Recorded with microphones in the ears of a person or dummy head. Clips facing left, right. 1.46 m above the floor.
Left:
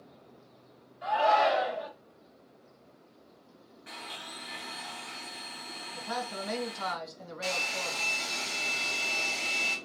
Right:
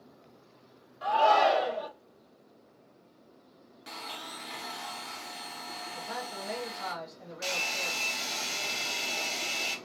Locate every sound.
1.0 s a shout: 75° right (ahead or behind), 1.2 m
3.9 s a blender: 55° right (ahead or behind), 0.6 m
5.9 s a man speaking: 65° left (ahead or behind), 1.1 m
7.4 s a hair dryer: 60° right (ahead or behind), 1.3 m